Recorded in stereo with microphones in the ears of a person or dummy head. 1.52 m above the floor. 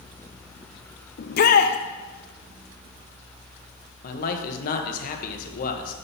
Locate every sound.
1.2 s a shout: 55° left (ahead or behind), 0.7 m
4.0 s a man speaking: 50° left (ahead or behind), 1.3 m